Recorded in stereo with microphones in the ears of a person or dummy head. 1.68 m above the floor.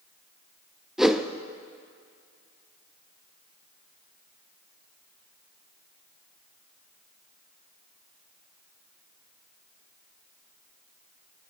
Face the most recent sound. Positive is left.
turn(degrees=0)  # may be behind; listen again after turning